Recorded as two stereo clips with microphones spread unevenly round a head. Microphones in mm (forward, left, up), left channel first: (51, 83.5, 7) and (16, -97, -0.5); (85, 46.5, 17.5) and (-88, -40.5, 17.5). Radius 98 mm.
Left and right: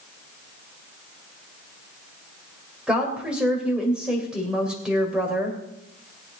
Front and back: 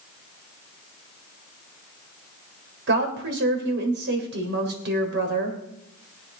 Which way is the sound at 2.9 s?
175° left.